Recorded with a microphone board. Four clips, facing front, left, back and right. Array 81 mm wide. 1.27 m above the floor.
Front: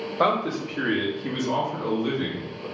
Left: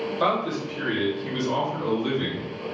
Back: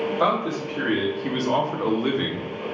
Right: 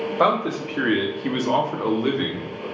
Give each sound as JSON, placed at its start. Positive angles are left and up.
{"t": 0.2, "sound": "a man speaking", "azimuth_deg": -65, "distance_m": 1.2}